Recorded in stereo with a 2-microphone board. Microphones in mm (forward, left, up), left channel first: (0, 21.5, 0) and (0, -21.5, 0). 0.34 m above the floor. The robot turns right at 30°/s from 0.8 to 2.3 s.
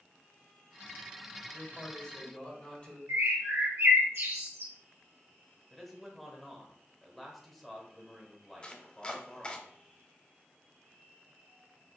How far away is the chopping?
About 0.6 m.